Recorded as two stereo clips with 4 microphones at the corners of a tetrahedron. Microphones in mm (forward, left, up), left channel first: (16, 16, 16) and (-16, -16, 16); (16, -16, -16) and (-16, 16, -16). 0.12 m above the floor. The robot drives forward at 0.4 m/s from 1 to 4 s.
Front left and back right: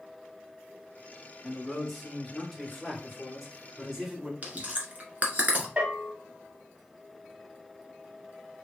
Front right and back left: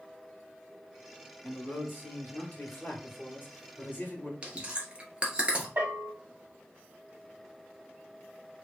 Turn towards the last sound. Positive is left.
turn(degrees=170)